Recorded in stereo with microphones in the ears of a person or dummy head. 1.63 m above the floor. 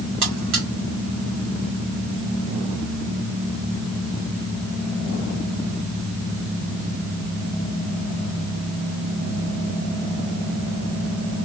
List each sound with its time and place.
0.2 s a buzzer: 55° right (ahead or behind), 2 m